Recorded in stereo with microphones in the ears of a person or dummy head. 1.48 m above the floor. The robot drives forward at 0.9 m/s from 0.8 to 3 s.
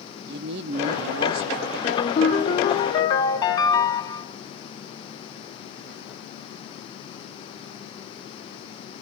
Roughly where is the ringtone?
Left.